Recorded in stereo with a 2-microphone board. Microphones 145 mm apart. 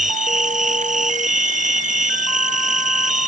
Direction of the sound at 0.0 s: 60° right (ahead or behind).